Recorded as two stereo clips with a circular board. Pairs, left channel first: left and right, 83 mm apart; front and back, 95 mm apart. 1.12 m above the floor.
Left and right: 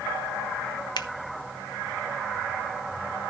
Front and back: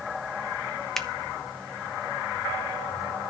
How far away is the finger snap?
About 0.9 m.